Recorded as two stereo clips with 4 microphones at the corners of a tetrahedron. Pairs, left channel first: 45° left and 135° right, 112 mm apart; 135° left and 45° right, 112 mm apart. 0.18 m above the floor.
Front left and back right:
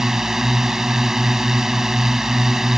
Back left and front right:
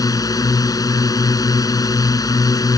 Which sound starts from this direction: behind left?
A drone, at 0.0 s.